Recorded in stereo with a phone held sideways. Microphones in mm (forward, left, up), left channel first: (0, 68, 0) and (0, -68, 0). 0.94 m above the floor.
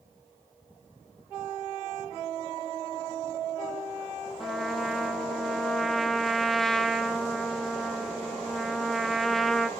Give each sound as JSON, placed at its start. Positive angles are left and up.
{"t": 4.4, "sound": "a trumpet", "side_deg": 0, "distance_m": 0.6}